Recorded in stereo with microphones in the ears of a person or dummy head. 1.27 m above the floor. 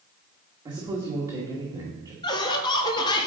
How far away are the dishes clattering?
I don't hear dishes clattering.